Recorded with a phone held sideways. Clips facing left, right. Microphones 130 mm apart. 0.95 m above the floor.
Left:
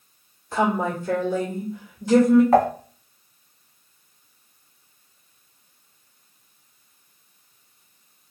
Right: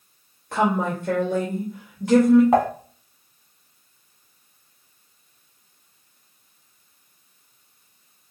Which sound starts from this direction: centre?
Dishes clattering, at 2.5 s.